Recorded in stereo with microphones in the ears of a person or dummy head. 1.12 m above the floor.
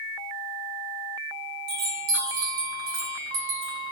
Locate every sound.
1.7 s a chime: 80° right, 9 m